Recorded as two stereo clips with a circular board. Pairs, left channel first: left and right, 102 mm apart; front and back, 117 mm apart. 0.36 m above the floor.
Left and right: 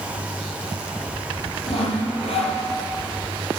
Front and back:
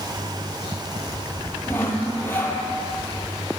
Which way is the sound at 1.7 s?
70° left.